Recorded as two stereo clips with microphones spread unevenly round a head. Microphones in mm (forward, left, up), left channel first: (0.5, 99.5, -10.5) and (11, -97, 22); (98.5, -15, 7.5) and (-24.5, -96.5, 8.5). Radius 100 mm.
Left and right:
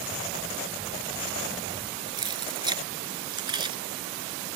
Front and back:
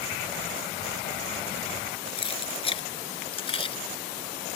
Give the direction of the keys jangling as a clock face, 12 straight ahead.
1 o'clock.